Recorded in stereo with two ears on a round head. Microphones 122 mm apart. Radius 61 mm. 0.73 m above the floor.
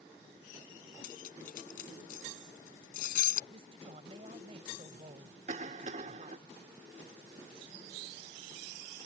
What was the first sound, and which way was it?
Cutlery clinking, 80° left.